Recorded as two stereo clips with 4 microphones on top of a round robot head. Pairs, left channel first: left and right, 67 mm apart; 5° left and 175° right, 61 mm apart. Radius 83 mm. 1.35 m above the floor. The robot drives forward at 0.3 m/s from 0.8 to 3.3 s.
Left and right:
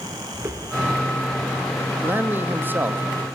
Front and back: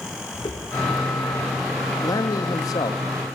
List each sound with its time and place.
0.3 s footsteps: 30° right, 4 m; by 1.9 s 20° right, 3.5 m
2.0 s a man speaking: 25° right, 1.9 m; by 3.0 s 30° right, 1.6 m